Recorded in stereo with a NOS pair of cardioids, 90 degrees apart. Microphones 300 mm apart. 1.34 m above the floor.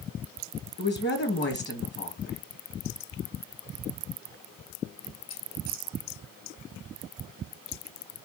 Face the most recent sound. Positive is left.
turn(degrees=35)